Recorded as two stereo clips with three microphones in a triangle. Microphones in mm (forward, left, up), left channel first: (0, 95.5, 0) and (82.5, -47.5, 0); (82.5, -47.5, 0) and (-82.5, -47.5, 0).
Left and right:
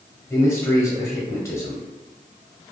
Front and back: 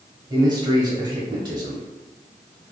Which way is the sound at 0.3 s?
165° left.